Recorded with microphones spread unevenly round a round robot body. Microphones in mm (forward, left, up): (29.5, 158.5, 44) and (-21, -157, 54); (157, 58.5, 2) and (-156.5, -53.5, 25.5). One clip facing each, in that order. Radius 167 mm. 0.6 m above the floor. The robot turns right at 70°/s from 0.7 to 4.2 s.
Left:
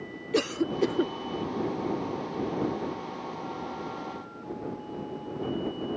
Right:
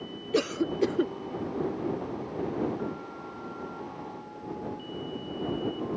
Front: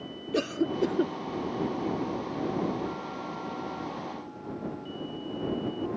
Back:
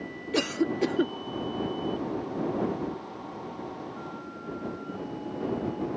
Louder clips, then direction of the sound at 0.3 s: Even, back 1 dB; 150° left.